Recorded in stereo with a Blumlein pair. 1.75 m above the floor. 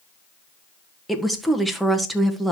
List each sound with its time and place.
1.1 s a woman speaking: straight ahead, 1.5 m